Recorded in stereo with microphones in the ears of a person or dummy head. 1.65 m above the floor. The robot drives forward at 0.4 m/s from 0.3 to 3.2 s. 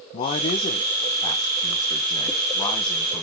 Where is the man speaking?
35° left (ahead or behind), 1.1 m; by 3.2 s 20° left (ahead or behind), 2 m.